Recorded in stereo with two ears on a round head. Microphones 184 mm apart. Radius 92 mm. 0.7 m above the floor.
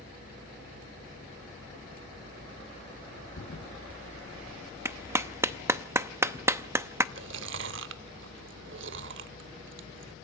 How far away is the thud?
About 4 m.